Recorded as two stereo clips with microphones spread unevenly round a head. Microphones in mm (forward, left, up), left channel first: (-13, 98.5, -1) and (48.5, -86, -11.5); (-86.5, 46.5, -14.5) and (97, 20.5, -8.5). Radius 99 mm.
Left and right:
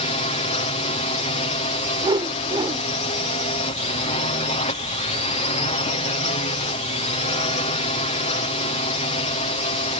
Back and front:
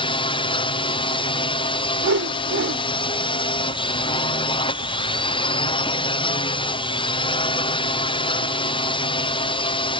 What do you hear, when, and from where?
0.0 s a drone: 140° left
2.0 s a whoosh: 5° right